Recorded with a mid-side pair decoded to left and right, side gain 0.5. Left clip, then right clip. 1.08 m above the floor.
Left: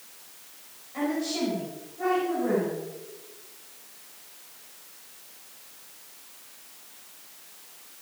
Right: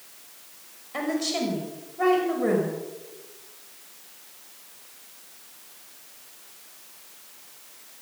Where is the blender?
No blender in this recording.